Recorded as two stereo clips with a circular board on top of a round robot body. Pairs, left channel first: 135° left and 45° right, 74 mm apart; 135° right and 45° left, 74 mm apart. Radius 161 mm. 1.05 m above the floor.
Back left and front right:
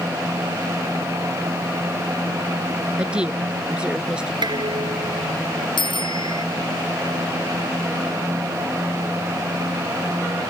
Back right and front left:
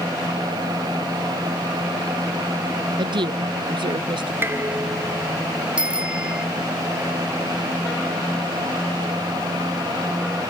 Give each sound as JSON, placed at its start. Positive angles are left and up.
{"t": 3.0, "sound": "a woman speaking", "azimuth_deg": 35}
{"t": 4.4, "sound": "dishes clattering", "azimuth_deg": -15}
{"t": 5.8, "sound": "a bicycle bell", "azimuth_deg": 120}